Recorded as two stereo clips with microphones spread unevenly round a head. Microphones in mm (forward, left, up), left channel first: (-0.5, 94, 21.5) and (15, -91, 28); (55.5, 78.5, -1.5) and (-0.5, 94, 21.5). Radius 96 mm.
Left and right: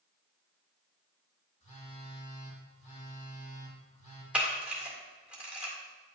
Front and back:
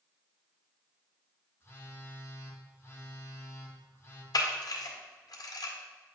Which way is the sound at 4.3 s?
Straight ahead.